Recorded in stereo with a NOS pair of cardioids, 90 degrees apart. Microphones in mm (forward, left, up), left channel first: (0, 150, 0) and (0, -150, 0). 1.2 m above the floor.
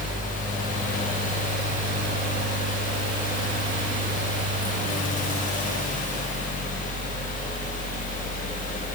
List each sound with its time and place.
0.0 s a fan: 25° left, 1.1 m